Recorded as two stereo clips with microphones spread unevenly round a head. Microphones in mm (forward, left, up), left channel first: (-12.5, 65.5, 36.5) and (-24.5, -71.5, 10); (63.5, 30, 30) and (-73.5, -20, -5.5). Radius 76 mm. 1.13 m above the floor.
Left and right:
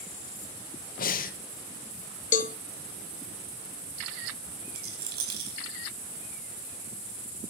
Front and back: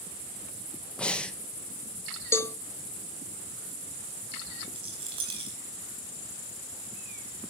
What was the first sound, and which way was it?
Breathing, 110° left.